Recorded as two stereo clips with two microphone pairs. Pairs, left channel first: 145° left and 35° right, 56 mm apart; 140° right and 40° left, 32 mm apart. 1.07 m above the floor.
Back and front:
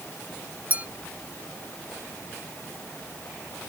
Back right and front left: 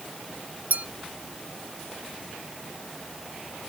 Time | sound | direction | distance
0.7 | a clink | 30° left | ?